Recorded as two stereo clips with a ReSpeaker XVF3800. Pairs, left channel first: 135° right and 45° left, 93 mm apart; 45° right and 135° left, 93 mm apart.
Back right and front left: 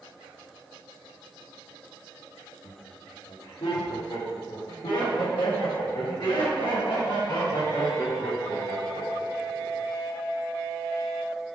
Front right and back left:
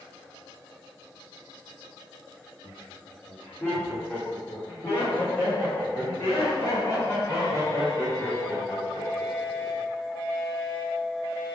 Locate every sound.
2.6 s laughter: 125° right, 2.5 m; by 9.8 s 100° right, 9 m